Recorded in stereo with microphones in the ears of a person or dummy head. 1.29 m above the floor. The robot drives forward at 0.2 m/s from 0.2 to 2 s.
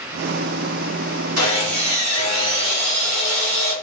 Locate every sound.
1.4 s sawing: 80° right, 1.2 m; by 3.7 s 75° right (ahead or behind), 1.3 m